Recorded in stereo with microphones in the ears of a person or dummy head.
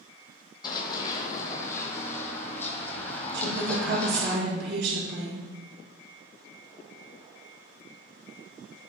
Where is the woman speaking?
70° right (ahead or behind), 4 m.